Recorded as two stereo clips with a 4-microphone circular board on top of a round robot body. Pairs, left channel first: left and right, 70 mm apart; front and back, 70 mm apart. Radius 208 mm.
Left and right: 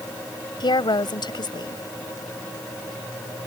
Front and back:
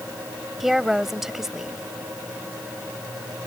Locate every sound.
0.6 s a woman speaking: 95° left